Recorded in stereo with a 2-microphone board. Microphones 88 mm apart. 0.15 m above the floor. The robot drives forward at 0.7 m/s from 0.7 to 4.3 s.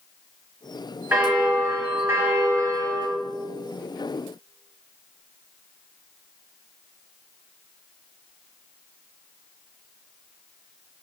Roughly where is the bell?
Right.